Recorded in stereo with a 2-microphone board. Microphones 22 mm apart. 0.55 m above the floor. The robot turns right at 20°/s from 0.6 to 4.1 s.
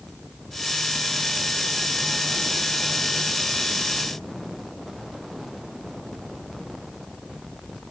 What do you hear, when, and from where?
Only background noise.